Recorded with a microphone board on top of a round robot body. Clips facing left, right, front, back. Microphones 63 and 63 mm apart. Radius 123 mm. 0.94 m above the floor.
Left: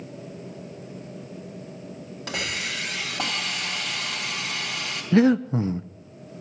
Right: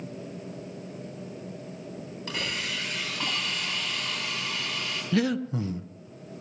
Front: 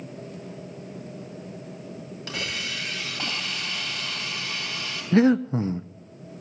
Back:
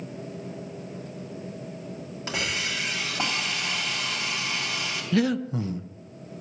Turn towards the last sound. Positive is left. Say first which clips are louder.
# left 8 dB, front 6 dB
turn(degrees=45)